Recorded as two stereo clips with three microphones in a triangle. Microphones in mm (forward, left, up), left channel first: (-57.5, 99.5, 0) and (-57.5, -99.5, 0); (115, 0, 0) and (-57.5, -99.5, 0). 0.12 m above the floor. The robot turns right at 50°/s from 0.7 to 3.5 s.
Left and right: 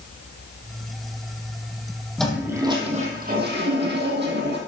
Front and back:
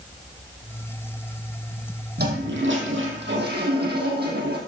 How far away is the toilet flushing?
About 4.5 m.